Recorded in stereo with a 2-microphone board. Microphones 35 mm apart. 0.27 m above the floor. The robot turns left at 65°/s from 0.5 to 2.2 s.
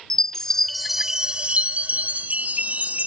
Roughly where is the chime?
Ahead.